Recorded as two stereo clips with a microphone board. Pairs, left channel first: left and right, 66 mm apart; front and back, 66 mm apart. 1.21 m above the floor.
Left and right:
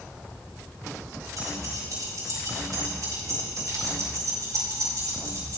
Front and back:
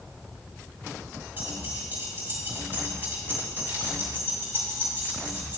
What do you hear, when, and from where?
1.4 s keys jangling: 120° right, 4 m